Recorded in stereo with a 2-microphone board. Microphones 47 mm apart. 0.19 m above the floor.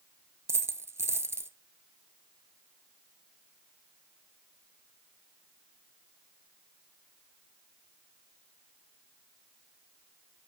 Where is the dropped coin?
70° right (ahead or behind), 0.6 m.